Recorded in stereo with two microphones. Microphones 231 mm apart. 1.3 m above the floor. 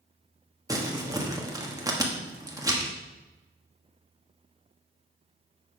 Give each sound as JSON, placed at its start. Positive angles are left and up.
{"t": 0.7, "sound": "crumpling", "side_deg": -15, "distance_m": 1.3}